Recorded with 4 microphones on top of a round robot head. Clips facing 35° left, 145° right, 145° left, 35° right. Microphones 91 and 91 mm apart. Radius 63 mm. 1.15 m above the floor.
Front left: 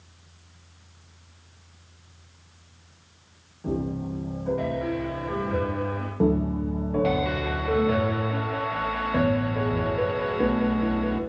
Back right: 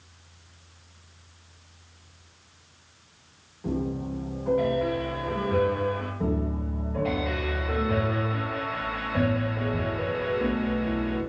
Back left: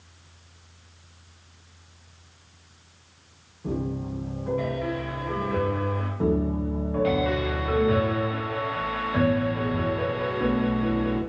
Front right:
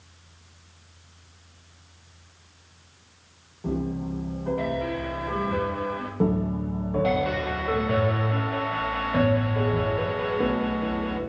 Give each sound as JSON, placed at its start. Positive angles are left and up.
{"t": 3.6, "sound": "a piano", "azimuth_deg": -55, "distance_m": 1.4}
{"t": 6.2, "sound": "a piano", "azimuth_deg": 25, "distance_m": 0.7}